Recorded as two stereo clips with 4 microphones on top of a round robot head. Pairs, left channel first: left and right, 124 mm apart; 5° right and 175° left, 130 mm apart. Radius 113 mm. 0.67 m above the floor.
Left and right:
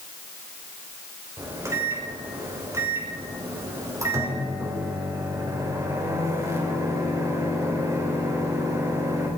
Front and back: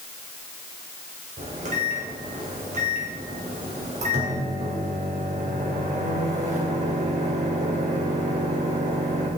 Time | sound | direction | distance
1.4 | a microwave | 155° right | 3 m